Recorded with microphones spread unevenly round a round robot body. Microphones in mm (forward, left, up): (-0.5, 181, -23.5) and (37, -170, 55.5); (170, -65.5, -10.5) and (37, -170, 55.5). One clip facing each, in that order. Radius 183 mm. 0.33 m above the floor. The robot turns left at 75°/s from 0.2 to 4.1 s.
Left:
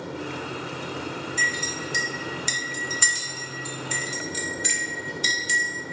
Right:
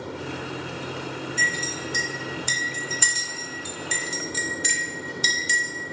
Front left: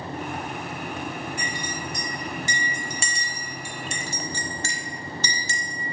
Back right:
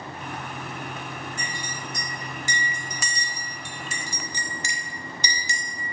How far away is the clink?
About 0.6 m.